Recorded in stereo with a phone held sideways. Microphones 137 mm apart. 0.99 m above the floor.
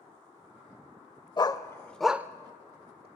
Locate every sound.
1.4 s a dog barking: 35° left (ahead or behind), 1.0 m; by 3.1 s 45° right (ahead or behind), 1.2 m